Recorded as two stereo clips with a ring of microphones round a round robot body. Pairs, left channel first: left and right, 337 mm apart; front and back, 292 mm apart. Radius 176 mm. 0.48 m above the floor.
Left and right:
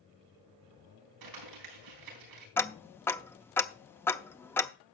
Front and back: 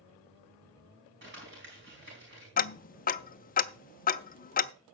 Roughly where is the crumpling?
Behind right.